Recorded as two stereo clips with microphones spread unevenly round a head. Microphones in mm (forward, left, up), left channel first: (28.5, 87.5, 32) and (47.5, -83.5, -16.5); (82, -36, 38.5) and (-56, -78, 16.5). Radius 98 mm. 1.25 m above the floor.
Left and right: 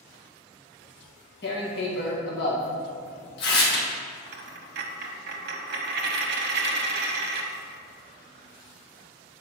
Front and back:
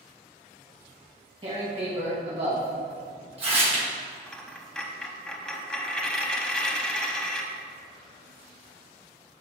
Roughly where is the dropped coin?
Ahead right.